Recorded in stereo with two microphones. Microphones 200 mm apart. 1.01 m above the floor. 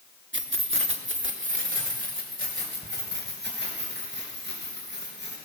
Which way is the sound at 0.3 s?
75° right (ahead or behind).